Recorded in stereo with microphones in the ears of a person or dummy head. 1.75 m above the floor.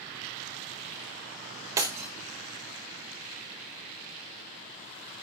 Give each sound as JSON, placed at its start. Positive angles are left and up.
{"t": 1.8, "sound": "breaking glass", "side_deg": -15, "distance_m": 0.8}